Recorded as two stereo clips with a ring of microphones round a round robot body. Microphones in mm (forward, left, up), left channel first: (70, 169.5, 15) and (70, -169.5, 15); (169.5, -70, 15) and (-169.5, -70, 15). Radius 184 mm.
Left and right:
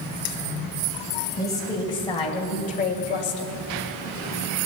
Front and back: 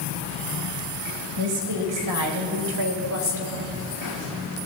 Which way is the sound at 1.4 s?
170° left.